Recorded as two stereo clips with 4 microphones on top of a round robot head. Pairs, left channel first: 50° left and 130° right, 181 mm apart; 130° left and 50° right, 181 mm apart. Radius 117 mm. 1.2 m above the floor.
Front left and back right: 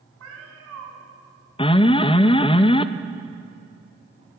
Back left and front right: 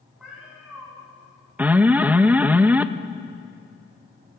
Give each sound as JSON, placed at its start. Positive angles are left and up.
{"t": 0.2, "sound": "a cat meowing", "azimuth_deg": -135, "distance_m": 3.0}
{"t": 1.6, "sound": "an alarm", "azimuth_deg": 25, "distance_m": 0.6}